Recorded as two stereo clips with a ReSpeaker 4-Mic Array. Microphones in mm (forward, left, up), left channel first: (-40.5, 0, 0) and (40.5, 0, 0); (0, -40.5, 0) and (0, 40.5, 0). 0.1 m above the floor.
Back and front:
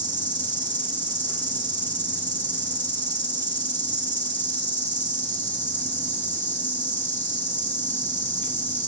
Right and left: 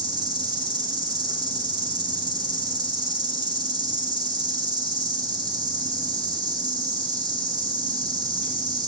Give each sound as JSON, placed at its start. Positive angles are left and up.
{"t": 0.0, "sound": "an insect", "azimuth_deg": 115, "distance_m": 1.5}